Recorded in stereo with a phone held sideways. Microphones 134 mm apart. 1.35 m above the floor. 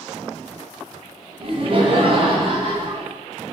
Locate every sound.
1.4 s laughter: 45° right (ahead or behind), 0.7 m